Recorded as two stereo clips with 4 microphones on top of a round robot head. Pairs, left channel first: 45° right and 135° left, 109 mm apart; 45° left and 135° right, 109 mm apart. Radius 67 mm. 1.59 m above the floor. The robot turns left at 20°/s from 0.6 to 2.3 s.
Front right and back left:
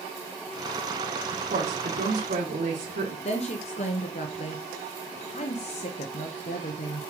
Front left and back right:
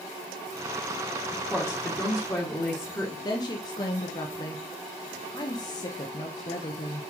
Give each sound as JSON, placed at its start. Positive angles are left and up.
{"t": 1.3, "sound": "a woman speaking", "azimuth_deg": 135, "distance_m": 1.8}
{"t": 3.2, "sound": "a woman speaking", "azimuth_deg": -10, "distance_m": 0.9}